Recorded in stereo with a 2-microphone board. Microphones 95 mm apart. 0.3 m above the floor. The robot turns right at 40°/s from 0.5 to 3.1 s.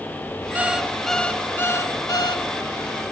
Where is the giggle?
No giggle in this recording.